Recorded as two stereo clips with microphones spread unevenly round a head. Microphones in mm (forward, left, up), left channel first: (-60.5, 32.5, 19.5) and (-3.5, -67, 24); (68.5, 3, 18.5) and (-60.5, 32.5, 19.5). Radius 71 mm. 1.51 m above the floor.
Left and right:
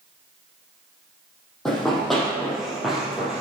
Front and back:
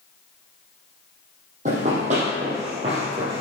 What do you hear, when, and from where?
1.6 s running footsteps: 150° right, 4 m; by 3.4 s 140° right, 3 m